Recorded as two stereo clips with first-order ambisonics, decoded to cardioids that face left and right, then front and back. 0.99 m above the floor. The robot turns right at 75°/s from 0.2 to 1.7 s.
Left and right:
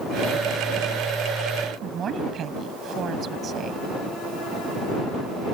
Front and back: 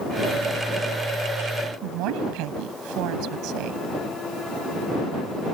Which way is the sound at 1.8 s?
150° right.